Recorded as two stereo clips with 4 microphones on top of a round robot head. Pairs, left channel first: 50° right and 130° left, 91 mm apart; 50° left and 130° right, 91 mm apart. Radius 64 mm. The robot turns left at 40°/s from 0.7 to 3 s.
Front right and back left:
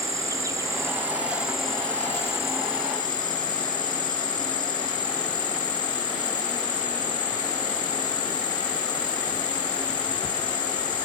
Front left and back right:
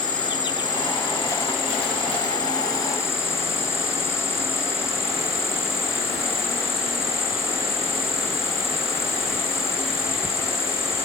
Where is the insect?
80° left, 2 m; by 11.1 s 15° right, 2 m.